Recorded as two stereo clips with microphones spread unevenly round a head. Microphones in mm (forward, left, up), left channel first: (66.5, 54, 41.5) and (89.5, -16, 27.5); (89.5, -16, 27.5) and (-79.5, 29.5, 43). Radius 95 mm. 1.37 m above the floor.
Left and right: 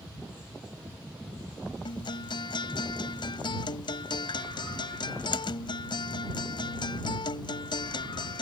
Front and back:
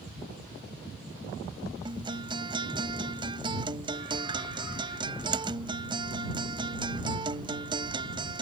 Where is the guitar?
100° left.